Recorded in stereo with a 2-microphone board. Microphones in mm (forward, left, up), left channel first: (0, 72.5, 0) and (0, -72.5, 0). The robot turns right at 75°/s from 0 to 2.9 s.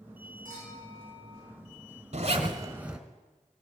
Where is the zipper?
65° right, 1.1 m; by 3.0 s 10° right, 1.1 m.